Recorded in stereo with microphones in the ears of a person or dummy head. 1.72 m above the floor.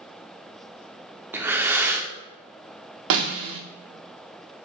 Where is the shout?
I don't hear a shout.